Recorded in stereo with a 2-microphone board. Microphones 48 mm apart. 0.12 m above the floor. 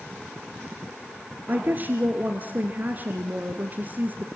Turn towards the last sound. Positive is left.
turn(degrees=-35)  # may be behind; listen again after turning